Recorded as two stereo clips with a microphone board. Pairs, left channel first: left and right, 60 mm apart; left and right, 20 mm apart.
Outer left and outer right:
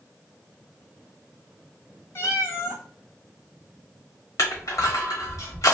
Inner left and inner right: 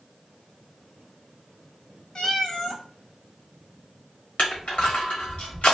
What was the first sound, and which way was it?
A cat meowing, 45° left (ahead or behind).